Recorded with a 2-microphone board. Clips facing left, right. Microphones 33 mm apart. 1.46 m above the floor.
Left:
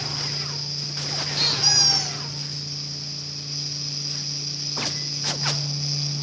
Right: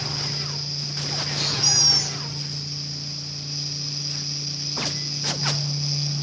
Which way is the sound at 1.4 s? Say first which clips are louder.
Left 3 dB; 40° left (ahead or behind).